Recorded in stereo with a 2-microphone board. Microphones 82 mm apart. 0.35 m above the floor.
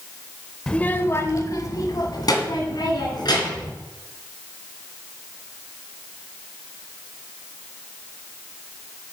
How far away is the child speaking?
About 0.6 m.